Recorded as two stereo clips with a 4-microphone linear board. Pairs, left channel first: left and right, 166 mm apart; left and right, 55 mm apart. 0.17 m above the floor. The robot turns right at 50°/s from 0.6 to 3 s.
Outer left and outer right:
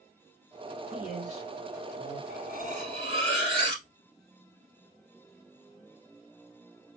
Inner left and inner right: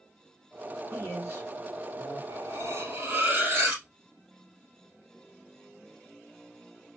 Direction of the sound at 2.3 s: 70° right.